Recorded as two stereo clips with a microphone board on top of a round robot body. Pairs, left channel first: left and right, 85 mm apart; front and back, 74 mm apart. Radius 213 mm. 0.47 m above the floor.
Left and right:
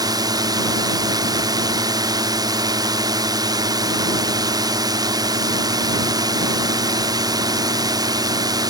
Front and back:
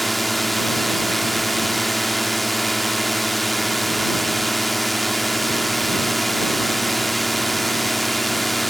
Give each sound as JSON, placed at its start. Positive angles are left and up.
{"t": 0.0, "sound": "a drone", "azimuth_deg": -90}